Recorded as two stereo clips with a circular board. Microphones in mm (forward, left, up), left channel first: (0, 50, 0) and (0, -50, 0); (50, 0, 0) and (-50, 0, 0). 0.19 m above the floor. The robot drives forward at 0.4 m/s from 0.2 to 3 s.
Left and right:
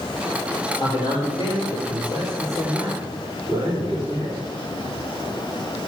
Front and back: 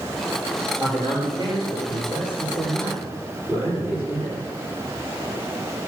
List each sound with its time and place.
0.8 s a man speaking: 135° left, 3.5 m; by 4.4 s 140° left, 4 m